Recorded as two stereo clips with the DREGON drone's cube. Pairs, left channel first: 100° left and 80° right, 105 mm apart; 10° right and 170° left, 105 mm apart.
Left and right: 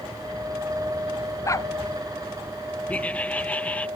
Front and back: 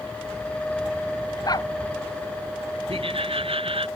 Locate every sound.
1.4 s a dog barking: 40° left
2.9 s laughter: 175° left